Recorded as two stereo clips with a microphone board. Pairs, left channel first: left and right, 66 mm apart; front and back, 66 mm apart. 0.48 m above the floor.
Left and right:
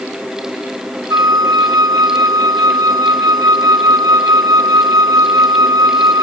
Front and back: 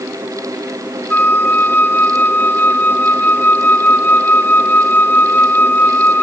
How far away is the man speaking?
No man speaking in this recording.